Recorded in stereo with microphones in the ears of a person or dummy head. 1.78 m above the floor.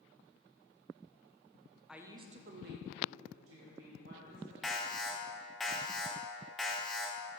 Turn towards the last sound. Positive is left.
turn(degrees=0)  # may be behind; listen again after turning